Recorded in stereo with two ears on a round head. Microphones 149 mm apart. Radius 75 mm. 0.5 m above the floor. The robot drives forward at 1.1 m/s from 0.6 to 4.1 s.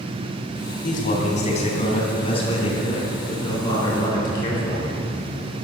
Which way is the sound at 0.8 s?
50° left (ahead or behind).